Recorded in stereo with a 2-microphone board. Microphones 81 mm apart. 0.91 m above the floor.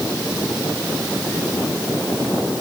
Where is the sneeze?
No sneeze in this recording.